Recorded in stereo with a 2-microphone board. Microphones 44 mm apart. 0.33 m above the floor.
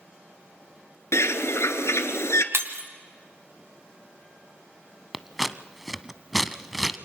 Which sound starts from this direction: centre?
Scissors, at 5.1 s.